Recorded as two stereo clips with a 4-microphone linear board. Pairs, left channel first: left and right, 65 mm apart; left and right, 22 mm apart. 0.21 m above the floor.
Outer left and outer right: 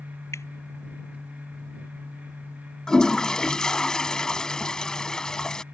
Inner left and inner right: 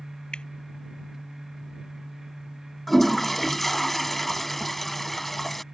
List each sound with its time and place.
0.3 s dripping: 45° left (ahead or behind)
2.9 s a toilet flushing: 10° left (ahead or behind)